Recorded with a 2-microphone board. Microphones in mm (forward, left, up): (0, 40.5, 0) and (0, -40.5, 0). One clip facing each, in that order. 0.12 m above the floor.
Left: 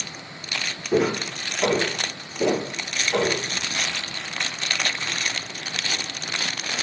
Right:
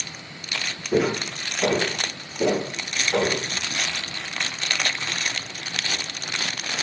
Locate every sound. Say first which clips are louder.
0.9 s footsteps: left 1 dB; 10° left (ahead or behind), 2.5 m; by 3.4 s 10° right (ahead or behind), 4 m